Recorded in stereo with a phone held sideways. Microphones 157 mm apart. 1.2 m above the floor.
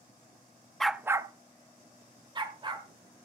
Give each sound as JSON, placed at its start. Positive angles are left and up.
{"t": 0.8, "sound": "a dog barking", "side_deg": 0, "distance_m": 0.6}